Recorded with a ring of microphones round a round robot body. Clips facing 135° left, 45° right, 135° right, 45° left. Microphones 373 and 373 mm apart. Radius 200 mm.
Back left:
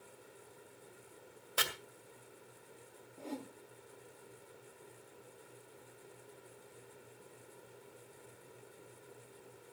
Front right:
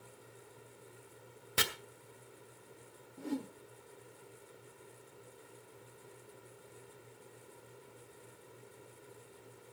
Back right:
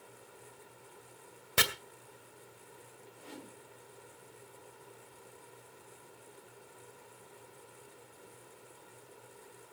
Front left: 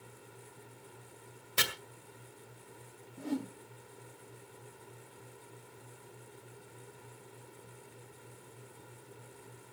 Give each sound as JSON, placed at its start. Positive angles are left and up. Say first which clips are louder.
{"t": 1.6, "sound": "chopping", "louder": "front right 3 dB, back right 4 dB", "azimuth_deg": -100, "distance_m": 2.0}
{"t": 3.2, "sound": "a whoosh", "louder": "front right 6 dB, front left 15 dB", "azimuth_deg": 20, "distance_m": 1.6}